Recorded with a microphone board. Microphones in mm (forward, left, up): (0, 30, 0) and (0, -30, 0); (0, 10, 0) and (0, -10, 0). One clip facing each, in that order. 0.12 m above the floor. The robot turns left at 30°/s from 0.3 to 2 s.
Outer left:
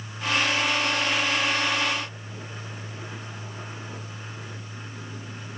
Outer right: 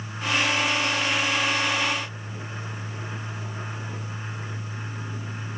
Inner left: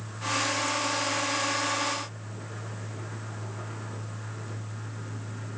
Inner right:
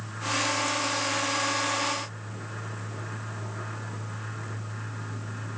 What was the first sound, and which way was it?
Only background noise.